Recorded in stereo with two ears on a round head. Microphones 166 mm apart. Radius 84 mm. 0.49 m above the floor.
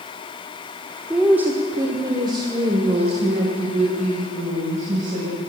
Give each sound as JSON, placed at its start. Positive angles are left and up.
{"t": 1.1, "sound": "a woman speaking", "side_deg": -5, "distance_m": 1.3}